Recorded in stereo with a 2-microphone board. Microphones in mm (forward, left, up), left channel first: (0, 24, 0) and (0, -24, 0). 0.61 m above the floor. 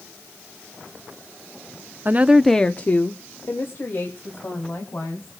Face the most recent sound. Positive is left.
turn(degrees=55)  # may be behind; listen again after turning